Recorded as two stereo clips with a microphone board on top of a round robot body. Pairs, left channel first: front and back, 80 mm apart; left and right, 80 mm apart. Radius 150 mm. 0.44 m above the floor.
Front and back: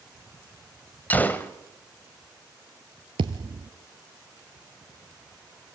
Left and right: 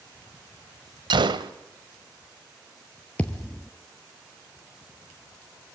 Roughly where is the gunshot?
Right.